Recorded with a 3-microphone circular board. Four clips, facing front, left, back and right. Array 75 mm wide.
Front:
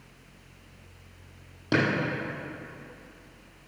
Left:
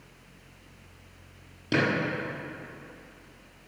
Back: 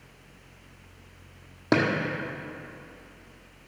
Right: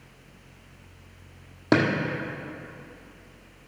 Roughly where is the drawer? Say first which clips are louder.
Right 5 dB, back 2 dB; behind right.